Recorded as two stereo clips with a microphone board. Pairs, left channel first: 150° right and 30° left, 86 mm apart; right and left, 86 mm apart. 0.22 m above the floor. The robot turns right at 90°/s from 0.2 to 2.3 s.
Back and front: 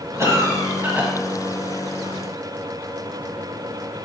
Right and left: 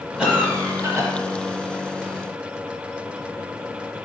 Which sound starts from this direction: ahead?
A cough, at 0.2 s.